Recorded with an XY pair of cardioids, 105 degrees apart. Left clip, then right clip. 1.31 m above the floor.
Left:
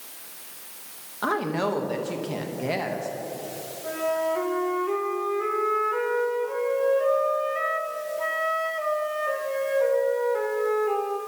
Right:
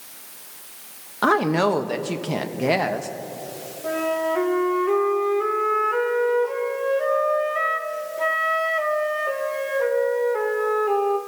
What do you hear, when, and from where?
1.2 s a woman speaking: 45° right, 1.0 m
3.8 s a flute: 35° right, 1.5 m